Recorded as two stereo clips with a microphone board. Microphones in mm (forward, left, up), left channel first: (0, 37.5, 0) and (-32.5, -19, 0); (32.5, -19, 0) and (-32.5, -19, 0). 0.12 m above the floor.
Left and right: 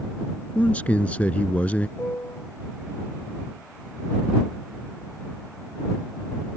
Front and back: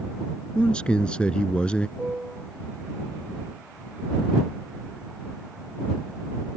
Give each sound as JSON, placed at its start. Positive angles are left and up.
{"t": 0.6, "sound": "a man speaking", "azimuth_deg": 45}
{"t": 2.0, "sound": "a piano", "azimuth_deg": 110}